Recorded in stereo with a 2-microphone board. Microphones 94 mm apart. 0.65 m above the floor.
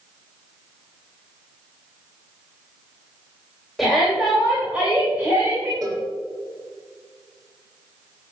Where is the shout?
Centre (ahead or behind), 3 m; by 5.7 s 25° right (ahead or behind), 3 m.